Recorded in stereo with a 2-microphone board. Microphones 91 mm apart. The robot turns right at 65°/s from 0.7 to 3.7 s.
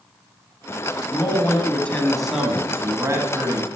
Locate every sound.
1.1 s a man speaking: 110° left, 1.3 m; by 3.7 s 85° right, 1.3 m